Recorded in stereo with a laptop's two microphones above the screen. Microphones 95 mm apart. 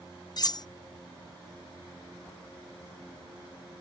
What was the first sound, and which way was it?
Cutlery clinking, 45° left (ahead or behind).